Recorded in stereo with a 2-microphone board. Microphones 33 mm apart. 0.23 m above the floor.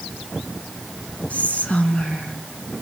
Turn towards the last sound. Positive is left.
turn(degrees=45)  # may be behind; listen again after turning